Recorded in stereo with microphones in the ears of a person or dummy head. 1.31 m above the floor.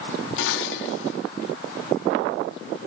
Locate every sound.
0.4 s dishes clattering: 80° left, 1.8 m